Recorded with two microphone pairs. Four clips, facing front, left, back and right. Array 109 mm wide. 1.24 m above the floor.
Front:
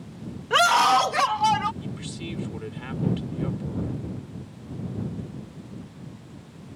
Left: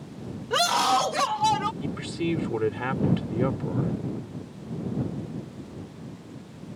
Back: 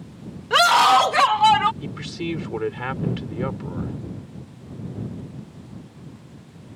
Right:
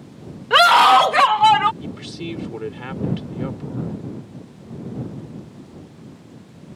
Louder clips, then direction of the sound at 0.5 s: Right 11 dB, back 3 dB; 95° right.